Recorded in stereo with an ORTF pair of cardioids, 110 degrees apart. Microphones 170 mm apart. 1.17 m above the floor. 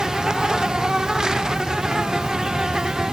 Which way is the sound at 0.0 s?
5° right.